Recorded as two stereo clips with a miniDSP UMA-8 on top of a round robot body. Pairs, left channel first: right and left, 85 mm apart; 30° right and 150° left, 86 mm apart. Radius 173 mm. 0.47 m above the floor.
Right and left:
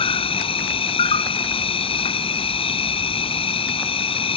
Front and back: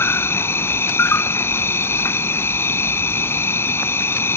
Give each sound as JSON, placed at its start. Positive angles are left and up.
{"t": 0.0, "sound": "an insect", "azimuth_deg": -95}